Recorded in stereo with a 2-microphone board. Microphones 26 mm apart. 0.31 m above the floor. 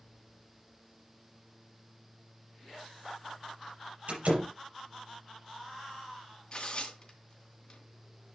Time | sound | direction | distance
4.1 | a door slam | 70° right (ahead or behind) | 6 m
6.5 | tearing paper | 40° left (ahead or behind) | 2.5 m